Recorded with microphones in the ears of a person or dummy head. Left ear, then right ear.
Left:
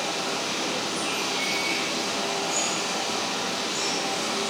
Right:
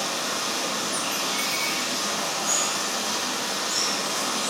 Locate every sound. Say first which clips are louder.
0.0 s running water: right 1 dB; 70° right (ahead or behind), 4 m